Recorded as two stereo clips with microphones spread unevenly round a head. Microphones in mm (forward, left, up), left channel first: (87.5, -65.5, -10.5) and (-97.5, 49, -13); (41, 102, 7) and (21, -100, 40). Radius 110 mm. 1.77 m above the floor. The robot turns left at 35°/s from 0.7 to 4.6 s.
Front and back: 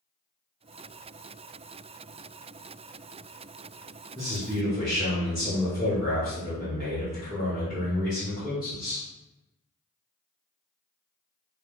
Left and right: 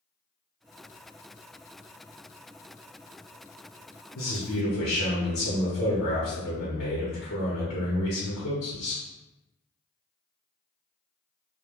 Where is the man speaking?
75° left, 1.0 m; by 9.1 s 60° left, 1.0 m.